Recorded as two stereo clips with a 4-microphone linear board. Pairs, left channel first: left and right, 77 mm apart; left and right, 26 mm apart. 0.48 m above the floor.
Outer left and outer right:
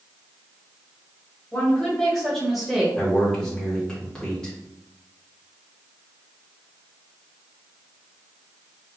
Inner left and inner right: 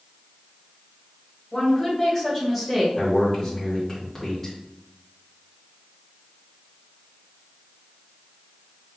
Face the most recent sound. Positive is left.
turn(degrees=10)  # may be behind; listen again after turning